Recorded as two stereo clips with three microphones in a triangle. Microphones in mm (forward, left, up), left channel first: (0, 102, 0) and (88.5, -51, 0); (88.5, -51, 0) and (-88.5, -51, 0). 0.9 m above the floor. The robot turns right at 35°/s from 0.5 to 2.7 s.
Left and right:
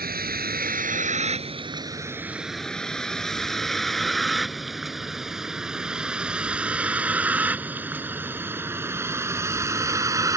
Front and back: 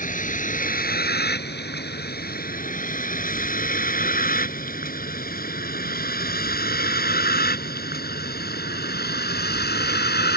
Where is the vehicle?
35° right; by 10.4 s 10° left.